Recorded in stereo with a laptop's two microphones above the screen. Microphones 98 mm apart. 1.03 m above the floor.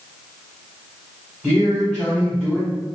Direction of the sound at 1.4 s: 5° left (ahead or behind).